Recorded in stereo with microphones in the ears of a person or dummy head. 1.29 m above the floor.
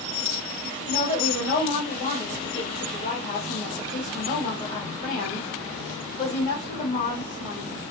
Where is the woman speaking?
45° left (ahead or behind), 2 m.